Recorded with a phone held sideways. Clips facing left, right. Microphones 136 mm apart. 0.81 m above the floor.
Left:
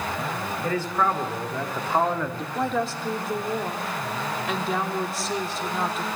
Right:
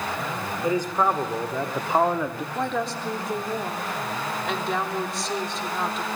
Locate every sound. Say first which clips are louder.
0.6 s a man speaking: right 2 dB; 15° right (ahead or behind), 3.5 m; by 2.5 s 10° right (ahead or behind), 1.6 m
2.5 s a woman speaking: left 2 dB; centre (ahead or behind), 2.5 m